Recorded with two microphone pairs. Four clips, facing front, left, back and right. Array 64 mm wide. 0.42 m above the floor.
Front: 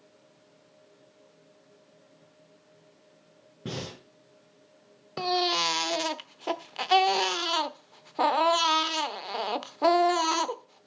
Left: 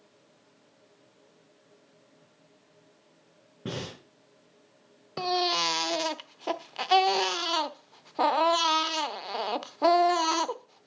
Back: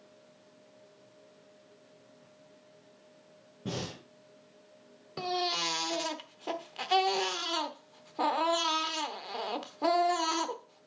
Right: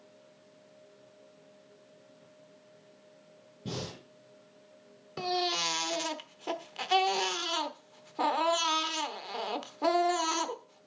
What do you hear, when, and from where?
3.6 s breathing: 70° left, 4 m
5.2 s a baby crying: 35° left, 0.7 m